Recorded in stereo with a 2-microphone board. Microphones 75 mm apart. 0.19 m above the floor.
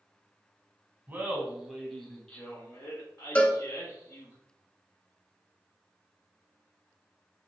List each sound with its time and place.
1.1 s laughter: 25° right (ahead or behind), 1.1 m; by 4.3 s 50° left (ahead or behind), 1.9 m
3.4 s a cowbell: 20° left (ahead or behind), 0.7 m